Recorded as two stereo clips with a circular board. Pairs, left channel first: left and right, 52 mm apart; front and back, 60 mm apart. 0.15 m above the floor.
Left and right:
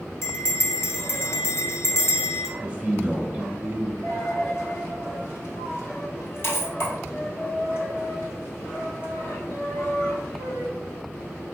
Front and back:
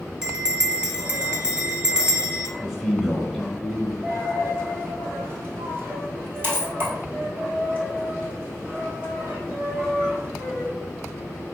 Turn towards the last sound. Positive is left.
turn(degrees=130)